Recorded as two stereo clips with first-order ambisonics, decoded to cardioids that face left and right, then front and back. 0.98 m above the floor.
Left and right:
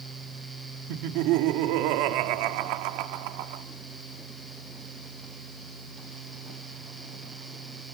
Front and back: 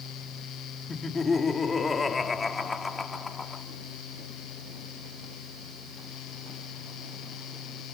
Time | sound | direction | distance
0.9 | laughter | 75° right | 1.8 m